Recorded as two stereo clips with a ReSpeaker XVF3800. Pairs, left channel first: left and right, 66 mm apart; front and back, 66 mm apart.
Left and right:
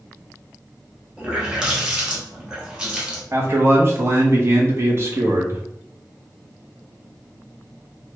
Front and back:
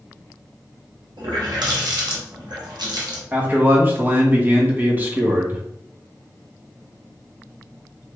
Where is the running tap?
170° right, 1.0 m.